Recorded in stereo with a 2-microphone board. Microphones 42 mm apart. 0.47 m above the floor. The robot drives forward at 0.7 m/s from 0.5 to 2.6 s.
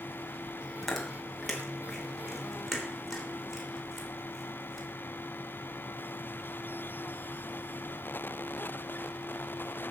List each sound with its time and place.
0.8 s chewing: 5° left (ahead or behind), 2.5 m